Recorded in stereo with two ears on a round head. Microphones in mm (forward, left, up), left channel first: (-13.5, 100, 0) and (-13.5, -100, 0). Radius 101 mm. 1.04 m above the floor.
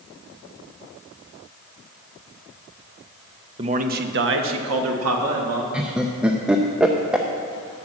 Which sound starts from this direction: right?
A man speaking, at 3.6 s.